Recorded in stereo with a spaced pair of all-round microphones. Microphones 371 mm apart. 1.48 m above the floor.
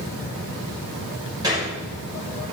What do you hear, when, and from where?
1.4 s a gunshot: 10° right (ahead or behind), 4.5 m